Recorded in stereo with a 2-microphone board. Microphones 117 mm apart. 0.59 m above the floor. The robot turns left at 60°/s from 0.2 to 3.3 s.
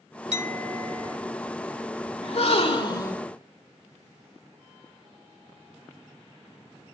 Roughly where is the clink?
Right.